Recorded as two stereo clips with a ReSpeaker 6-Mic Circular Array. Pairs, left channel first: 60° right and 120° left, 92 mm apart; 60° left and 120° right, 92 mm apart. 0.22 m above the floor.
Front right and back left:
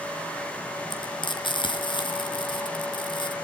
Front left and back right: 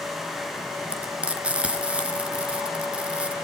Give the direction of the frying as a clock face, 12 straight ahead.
1 o'clock.